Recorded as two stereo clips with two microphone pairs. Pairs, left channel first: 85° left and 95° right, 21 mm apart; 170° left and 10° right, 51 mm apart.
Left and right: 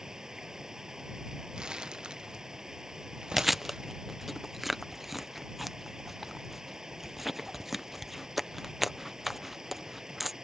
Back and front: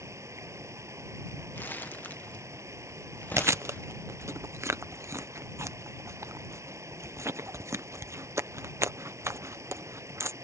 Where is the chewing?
10° right.